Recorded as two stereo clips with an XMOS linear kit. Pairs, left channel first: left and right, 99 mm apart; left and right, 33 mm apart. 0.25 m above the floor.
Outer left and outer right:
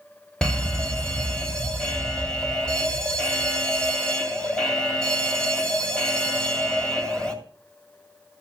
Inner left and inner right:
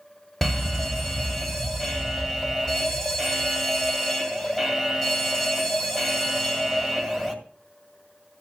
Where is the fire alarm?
10° left (ahead or behind), 2 m.